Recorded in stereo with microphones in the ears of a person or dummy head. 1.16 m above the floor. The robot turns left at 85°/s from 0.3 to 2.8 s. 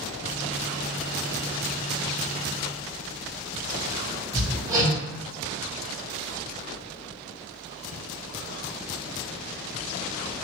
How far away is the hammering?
About 1.3 m.